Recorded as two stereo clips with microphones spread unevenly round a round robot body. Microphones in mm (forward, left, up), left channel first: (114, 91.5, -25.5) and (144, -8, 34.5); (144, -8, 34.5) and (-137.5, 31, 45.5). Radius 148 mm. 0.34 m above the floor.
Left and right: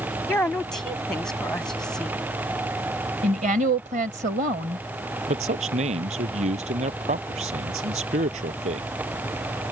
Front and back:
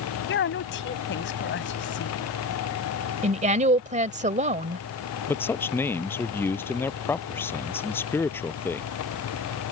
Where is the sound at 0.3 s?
40° left.